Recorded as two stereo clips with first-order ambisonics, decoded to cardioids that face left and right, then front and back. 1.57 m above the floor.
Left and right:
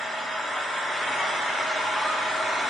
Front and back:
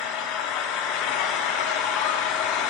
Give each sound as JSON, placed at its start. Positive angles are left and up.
{"t": 0.0, "sound": "an engine running", "azimuth_deg": 10, "distance_m": 0.8}